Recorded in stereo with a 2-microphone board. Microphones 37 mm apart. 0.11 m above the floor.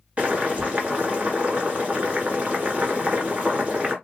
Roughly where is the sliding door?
I don't hear a sliding door.